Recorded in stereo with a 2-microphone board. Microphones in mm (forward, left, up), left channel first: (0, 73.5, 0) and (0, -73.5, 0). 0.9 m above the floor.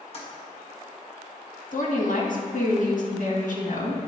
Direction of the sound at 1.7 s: 65° left (ahead or behind).